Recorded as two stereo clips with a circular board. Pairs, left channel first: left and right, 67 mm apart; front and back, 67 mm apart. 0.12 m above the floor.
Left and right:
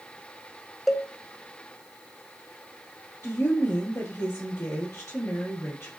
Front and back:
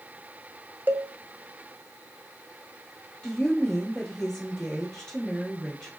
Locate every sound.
0.9 s a cowbell: 175° right, 0.5 m
3.2 s a woman speaking: 75° left, 2 m